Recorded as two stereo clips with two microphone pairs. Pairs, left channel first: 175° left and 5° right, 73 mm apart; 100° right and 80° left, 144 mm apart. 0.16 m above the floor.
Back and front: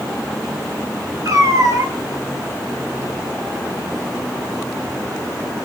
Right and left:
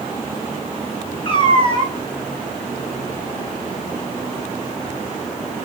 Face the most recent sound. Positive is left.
turn(degrees=-45)